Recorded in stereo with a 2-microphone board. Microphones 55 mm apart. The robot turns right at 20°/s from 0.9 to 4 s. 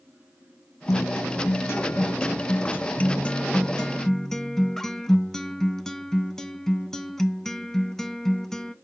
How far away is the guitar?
About 0.5 m.